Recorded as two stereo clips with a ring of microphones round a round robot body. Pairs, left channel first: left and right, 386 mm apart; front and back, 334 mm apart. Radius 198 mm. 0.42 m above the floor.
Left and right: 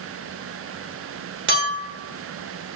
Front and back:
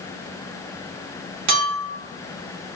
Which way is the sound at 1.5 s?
150° right.